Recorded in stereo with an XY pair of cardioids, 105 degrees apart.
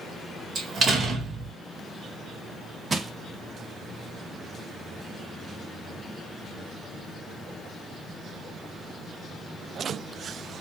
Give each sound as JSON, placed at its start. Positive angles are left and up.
{"t": 0.6, "sound": "a door slam", "azimuth_deg": -45, "distance_m": 1.9}
{"t": 2.9, "sound": "crushing", "azimuth_deg": -30, "distance_m": 0.9}